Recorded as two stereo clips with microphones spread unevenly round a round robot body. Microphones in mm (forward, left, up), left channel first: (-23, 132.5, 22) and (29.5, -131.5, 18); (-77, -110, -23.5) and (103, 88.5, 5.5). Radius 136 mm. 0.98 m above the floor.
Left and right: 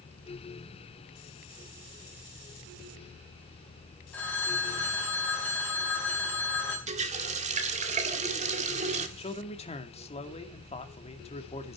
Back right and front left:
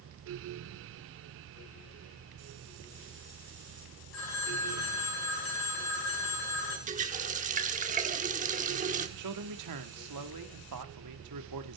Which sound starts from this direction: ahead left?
A man speaking, at 9.2 s.